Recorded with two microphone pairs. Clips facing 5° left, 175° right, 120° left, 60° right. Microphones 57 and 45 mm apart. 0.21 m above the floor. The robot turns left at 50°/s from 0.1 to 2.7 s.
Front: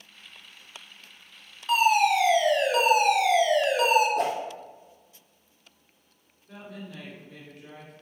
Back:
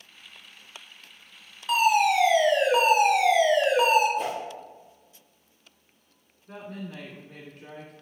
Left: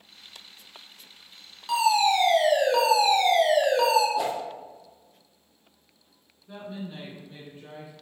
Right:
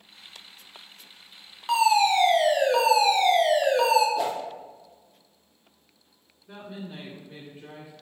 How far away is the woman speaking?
About 1.9 m.